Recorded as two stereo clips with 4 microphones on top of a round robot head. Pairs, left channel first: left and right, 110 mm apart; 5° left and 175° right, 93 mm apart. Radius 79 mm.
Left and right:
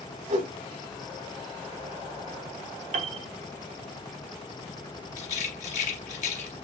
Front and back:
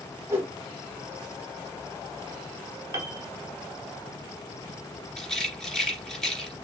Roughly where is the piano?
Right.